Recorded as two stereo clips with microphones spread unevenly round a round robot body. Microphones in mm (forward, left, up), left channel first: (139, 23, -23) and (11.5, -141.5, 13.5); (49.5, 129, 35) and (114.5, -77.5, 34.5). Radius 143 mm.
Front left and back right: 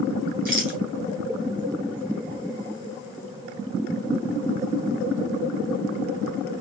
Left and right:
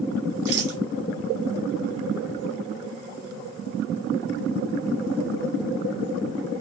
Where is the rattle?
105° right, 3.5 m.